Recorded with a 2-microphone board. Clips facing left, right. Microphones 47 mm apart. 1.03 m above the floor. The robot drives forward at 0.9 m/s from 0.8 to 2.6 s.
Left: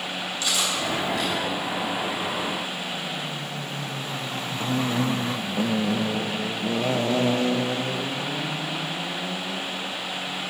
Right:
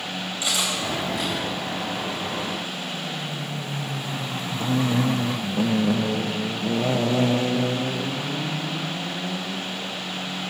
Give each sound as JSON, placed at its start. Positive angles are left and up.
{"t": 0.4, "sound": "cutlery clinking", "side_deg": -20, "distance_m": 3.0}